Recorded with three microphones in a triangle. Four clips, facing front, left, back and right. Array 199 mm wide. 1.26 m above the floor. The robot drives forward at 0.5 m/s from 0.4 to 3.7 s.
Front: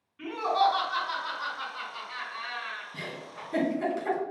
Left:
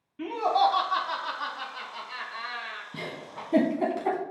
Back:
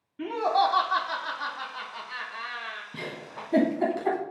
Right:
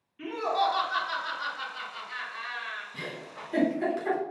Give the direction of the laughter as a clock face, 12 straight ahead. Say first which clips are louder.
Left 4 dB, back 1 dB; 8 o'clock.